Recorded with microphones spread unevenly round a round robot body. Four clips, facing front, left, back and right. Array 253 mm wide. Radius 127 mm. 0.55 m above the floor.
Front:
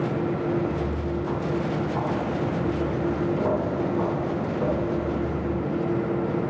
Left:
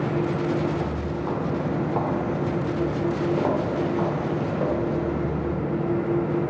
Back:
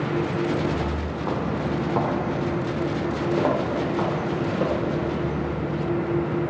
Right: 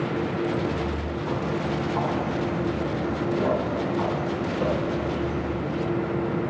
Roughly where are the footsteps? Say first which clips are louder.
Left 1 dB, back 1 dB; behind left.